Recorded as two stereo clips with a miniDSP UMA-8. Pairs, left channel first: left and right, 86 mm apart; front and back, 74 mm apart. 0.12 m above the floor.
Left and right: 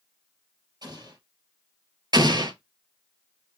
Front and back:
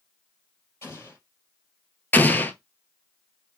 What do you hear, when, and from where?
0.8 s an explosion: 55° right, 3.5 m
2.1 s an explosion: 65° right, 0.6 m